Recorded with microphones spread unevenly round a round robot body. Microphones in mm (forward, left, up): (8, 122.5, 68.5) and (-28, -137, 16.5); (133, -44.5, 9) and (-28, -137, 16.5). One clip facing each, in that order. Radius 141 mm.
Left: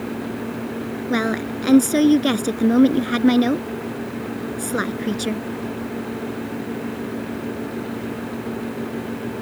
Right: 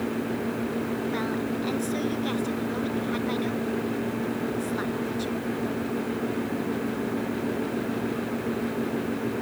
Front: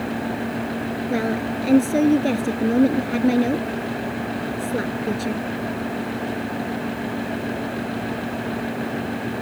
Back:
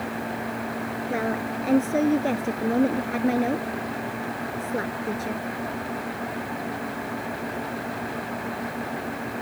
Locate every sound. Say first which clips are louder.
1.1 s a woman speaking: left 5 dB, front 4 dB; 100° left